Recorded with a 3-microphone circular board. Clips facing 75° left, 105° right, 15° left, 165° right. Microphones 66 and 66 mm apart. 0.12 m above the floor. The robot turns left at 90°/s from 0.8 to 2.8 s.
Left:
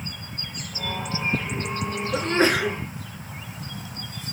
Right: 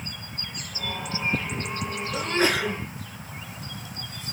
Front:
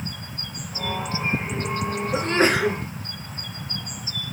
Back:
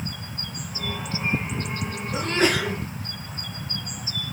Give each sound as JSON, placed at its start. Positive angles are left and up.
{"t": 2.1, "sound": "a sneeze", "azimuth_deg": 60, "distance_m": 2.0}